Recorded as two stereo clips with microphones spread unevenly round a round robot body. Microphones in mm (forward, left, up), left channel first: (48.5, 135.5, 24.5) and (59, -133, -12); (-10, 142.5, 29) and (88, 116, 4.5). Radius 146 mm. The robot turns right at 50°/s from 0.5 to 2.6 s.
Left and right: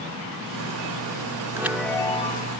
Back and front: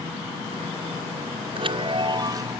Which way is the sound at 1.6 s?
10° right.